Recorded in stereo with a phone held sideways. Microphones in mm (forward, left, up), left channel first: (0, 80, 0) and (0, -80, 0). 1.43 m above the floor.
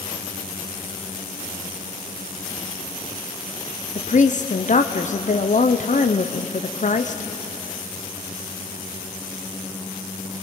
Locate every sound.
4.0 s a woman speaking: 50° left (ahead or behind), 0.7 m